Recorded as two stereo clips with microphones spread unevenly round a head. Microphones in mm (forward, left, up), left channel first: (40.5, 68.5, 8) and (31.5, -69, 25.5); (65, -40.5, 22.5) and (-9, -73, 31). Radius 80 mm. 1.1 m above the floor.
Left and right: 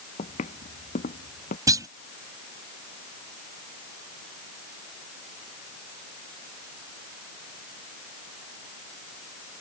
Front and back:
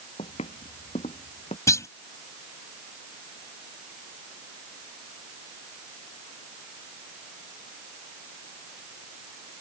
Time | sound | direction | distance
0.2 | footsteps | 45° left | ?
1.7 | a clunk | 30° right | ?